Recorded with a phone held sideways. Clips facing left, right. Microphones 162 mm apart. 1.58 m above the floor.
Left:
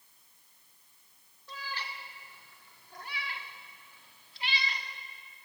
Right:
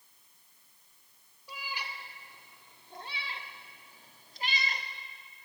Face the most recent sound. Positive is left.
turn(degrees=-50)  # may be behind; listen again after turning